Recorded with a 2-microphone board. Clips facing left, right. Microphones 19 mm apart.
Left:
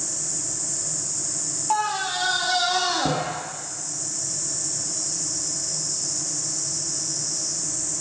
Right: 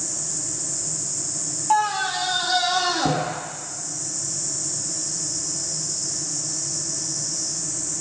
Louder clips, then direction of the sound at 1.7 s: Right 3 dB; centre (ahead or behind).